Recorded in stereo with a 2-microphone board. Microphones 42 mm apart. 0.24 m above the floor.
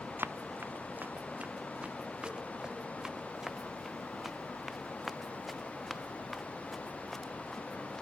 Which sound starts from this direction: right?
Running footsteps, at 0.2 s.